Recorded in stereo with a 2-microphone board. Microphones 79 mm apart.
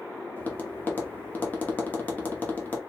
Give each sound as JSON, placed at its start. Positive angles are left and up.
{"t": 0.4, "sound": "tapping", "side_deg": 25, "distance_m": 0.9}